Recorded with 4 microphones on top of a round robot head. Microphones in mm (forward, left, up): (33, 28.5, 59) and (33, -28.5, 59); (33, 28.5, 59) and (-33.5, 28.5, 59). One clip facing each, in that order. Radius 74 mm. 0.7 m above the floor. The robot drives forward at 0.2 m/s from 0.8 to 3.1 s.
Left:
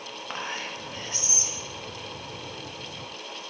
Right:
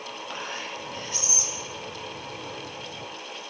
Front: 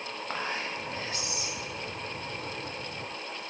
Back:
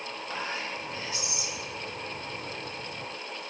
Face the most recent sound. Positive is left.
turn(degrees=85)